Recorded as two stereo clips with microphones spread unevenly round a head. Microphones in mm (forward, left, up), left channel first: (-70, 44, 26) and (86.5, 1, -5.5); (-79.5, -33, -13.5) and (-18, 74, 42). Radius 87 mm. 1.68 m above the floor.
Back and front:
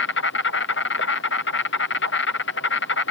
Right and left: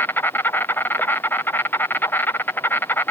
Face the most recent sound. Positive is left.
turn(degrees=180)